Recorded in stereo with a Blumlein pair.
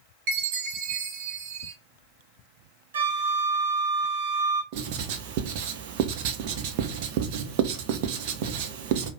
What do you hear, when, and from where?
0.3 s a chime: 45° right, 1.5 m
2.9 s a flute: 65° right, 1.1 m
4.7 s writing: 45° right, 0.8 m